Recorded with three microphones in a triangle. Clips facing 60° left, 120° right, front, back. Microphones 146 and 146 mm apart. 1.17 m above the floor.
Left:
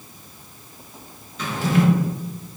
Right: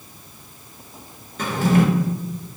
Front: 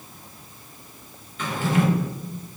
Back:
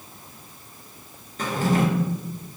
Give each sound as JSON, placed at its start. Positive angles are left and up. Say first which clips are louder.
{"t": 1.4, "sound": "a drawer", "louder": "right 3 dB, back 1 dB", "azimuth_deg": -145, "distance_m": 0.7}